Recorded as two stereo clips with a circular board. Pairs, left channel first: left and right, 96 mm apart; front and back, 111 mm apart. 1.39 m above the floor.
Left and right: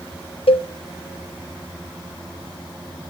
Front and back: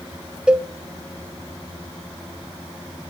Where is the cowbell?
95° left, 0.5 m.